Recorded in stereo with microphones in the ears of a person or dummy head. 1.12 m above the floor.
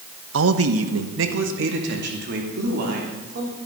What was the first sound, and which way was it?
A man speaking, 65° right (ahead or behind).